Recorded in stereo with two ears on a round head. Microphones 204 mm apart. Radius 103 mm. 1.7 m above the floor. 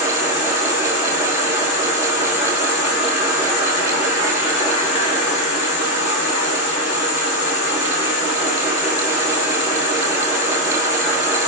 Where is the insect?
55° left (ahead or behind), 3.5 m.